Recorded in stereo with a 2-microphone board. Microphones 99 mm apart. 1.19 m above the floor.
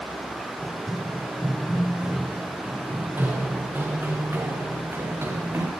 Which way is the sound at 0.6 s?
Centre (ahead or behind).